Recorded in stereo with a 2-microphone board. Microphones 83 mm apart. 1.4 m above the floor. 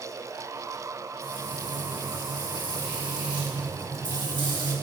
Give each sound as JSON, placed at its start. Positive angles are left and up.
{"t": 1.2, "sound": "frying", "side_deg": -65, "distance_m": 1.8}